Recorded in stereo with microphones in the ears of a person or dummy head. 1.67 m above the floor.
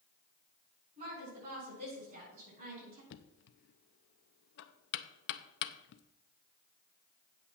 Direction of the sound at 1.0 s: 40° right (ahead or behind).